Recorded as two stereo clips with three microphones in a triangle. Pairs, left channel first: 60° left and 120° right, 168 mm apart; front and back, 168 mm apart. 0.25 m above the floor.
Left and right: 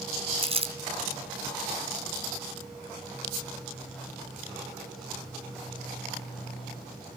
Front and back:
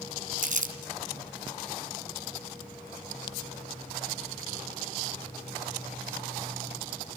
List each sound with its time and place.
0.4 s crumpling: 165° right, 2.5 m